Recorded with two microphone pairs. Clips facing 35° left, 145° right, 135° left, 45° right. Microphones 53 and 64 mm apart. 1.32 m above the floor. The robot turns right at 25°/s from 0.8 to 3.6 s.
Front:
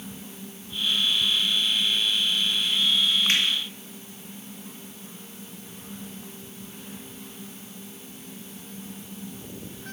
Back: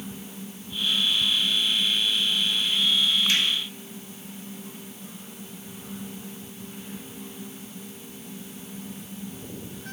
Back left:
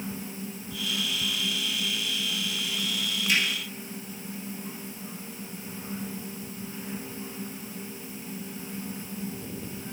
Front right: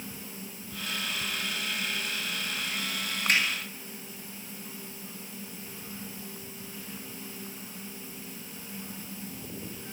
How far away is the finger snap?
About 1.7 m.